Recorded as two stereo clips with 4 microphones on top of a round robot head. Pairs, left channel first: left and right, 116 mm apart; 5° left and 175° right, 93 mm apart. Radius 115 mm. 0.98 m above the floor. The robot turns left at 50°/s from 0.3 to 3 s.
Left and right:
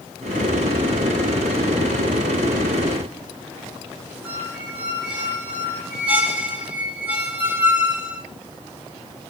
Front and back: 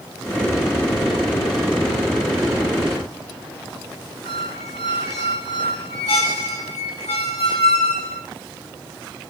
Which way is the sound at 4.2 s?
10° right.